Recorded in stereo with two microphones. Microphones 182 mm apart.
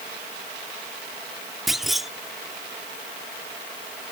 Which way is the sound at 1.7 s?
Centre (ahead or behind).